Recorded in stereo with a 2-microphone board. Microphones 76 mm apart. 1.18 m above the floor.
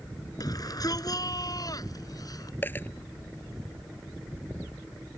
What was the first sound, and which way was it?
A shout, 50° left (ahead or behind).